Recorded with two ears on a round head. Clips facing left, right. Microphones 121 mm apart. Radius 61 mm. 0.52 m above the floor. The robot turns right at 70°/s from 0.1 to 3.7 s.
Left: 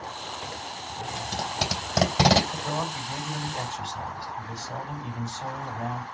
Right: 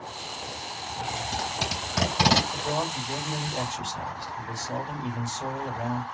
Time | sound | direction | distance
1.2 | tape being pulled | 30° left (ahead or behind) | 3 m
2.5 | a man speaking | straight behind | 2.5 m